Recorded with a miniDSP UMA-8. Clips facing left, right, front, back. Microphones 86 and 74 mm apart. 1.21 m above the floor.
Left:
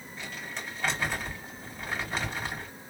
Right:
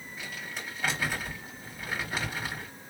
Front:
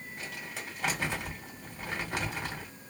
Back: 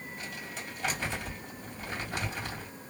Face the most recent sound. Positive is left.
turn(degrees=-5)